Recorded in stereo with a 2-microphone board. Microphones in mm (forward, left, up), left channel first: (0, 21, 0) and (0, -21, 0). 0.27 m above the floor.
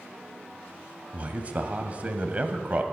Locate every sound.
1.1 s a man speaking: 30° right (ahead or behind), 1.2 m